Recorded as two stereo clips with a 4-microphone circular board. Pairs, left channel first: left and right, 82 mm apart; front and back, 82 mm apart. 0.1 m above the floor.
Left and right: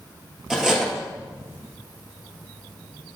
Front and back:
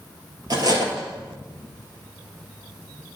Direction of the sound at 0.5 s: 175° right.